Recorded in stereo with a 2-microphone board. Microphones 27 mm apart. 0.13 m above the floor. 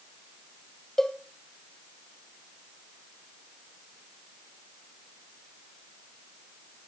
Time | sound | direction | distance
1.0 | a cowbell | 15° left (ahead or behind) | 1.2 m